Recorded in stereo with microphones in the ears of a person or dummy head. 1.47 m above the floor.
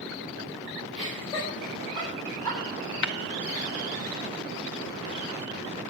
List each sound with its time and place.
0.9 s laughter: 25° left (ahead or behind), 5.5 m
3.0 s tapping: 55° left (ahead or behind), 0.8 m